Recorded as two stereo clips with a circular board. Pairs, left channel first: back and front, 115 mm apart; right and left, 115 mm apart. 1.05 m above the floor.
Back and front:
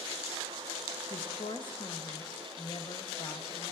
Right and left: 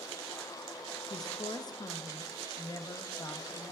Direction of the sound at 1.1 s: 140° right.